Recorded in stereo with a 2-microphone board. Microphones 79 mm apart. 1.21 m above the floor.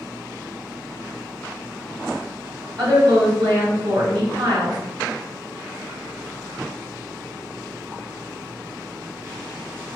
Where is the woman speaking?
75° right (ahead or behind), 1.3 m.